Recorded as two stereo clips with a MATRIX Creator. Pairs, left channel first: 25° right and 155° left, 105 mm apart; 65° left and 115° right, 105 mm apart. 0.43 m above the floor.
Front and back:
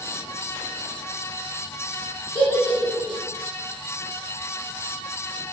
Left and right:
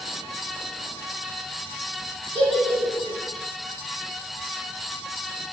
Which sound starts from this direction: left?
A giggle, at 2.4 s.